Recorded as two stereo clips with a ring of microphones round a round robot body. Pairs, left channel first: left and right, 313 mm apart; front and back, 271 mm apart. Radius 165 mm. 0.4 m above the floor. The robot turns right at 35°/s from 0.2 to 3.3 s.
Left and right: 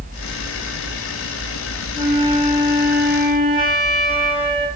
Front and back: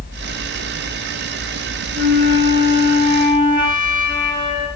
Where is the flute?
115° right, 7.5 m; by 4.7 s 70° right, 7.5 m.